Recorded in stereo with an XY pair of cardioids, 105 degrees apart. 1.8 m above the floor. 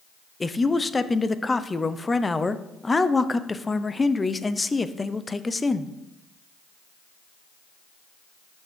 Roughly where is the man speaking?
Ahead.